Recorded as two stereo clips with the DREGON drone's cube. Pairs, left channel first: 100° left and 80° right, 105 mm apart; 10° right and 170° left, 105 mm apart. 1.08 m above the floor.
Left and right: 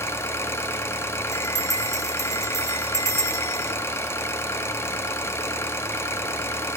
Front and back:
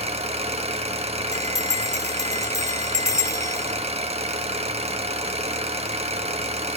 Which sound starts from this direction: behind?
An engine running, at 0.0 s.